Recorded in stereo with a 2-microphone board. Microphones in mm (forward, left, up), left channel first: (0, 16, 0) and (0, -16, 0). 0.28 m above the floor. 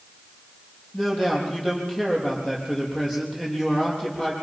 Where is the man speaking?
20° left (ahead or behind), 8 m.